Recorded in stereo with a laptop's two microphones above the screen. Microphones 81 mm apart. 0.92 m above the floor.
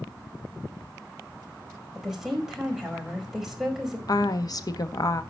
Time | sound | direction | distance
1.9 | a woman speaking | 5° right (ahead or behind) | 5 m
4.1 | a woman speaking | 50° left (ahead or behind) | 1.3 m